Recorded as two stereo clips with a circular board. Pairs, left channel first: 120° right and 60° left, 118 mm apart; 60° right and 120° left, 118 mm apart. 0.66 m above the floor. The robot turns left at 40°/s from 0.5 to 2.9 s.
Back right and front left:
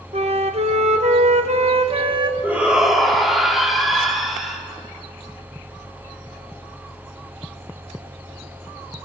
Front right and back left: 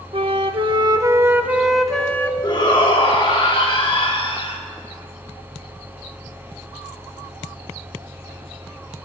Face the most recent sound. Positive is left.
turn(degrees=-30)